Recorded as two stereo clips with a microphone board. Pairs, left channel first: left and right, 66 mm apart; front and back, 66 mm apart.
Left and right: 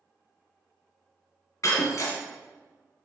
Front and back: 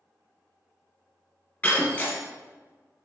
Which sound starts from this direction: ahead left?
Breaking glass, at 1.6 s.